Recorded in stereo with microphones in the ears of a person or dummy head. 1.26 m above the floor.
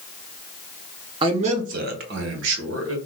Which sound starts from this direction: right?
A man speaking, at 1.2 s.